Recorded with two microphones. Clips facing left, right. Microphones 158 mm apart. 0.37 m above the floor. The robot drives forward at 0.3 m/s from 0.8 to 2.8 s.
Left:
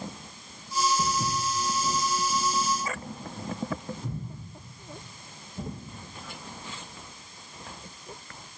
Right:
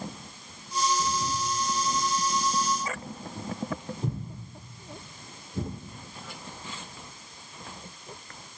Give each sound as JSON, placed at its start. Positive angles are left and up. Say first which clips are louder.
{"t": 1.0, "sound": "footsteps", "louder": "left 1 dB", "side_deg": 50, "distance_m": 1.3}